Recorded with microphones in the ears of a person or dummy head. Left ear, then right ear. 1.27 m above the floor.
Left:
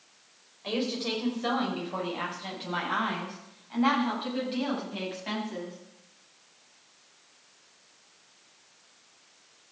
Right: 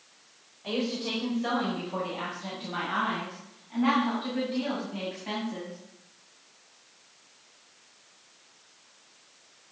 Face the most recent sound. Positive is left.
turn(degrees=30)  # may be behind; listen again after turning